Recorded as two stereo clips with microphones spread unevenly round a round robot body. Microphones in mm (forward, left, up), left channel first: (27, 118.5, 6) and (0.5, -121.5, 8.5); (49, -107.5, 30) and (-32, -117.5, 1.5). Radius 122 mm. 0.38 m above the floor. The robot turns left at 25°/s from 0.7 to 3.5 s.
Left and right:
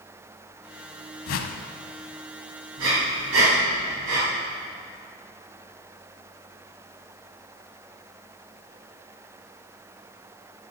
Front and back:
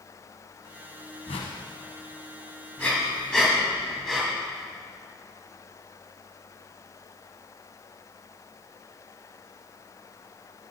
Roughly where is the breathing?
Ahead right.